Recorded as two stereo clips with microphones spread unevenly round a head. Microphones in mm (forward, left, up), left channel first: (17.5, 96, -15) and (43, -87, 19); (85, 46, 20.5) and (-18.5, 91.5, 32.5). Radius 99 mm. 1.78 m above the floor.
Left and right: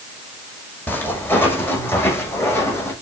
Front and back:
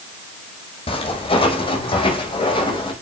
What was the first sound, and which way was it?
Footsteps, 15° left.